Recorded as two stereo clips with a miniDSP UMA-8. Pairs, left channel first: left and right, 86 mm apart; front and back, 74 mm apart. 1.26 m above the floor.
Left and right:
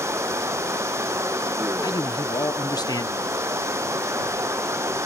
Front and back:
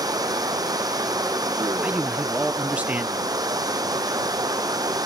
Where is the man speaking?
115° left.